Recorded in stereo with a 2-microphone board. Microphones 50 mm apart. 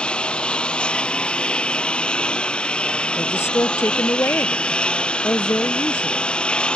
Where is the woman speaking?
55° left (ahead or behind).